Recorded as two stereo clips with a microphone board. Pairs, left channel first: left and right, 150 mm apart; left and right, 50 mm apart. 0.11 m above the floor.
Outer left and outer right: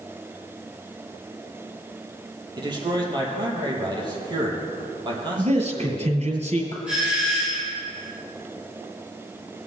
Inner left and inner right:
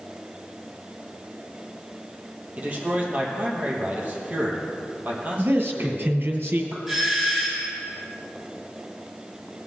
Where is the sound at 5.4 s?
50° right (ahead or behind), 2 m.